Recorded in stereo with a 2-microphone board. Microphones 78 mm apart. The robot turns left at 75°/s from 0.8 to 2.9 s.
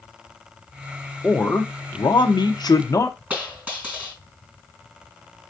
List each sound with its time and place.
1.2 s a man speaking: 170° left, 0.7 m; by 3.2 s 45° left, 0.7 m
3.3 s a dropped coin: 20° right (ahead or behind), 3 m